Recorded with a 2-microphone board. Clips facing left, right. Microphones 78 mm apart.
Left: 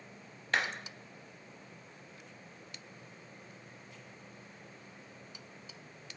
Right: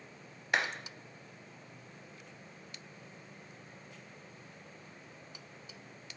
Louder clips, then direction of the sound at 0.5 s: Even; 10° right (ahead or behind).